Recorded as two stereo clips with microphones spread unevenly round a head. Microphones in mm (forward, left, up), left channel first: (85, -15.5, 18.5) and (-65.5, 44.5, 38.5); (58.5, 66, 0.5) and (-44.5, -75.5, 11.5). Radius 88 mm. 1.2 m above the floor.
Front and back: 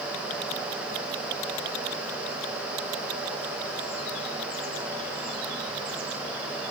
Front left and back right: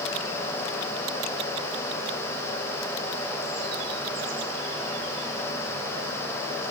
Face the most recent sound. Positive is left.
No sound to turn to.